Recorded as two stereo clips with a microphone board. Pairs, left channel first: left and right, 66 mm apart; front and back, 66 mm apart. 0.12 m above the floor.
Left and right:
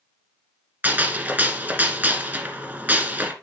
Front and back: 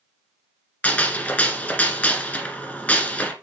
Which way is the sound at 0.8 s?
50° right.